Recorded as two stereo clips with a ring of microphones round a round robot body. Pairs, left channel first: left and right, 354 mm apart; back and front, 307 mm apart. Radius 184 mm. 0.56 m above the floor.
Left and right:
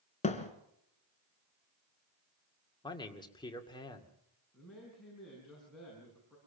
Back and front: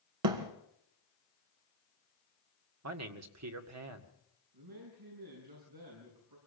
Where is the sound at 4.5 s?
Straight ahead, 6.5 m.